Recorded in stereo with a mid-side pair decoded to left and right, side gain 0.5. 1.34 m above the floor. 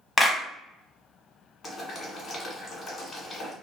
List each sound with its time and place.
0.2 s a clap: 15° left, 0.8 m
1.6 s boiling: 40° left, 1.4 m